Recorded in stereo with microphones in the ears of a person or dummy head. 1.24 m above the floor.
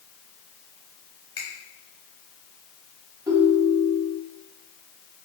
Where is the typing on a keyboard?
No typing on a keyboard in this recording.